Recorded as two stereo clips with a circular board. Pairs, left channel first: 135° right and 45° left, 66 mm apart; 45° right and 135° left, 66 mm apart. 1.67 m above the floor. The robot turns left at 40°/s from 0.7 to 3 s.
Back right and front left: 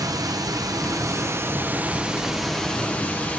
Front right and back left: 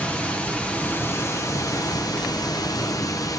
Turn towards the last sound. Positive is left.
turn(degrees=-65)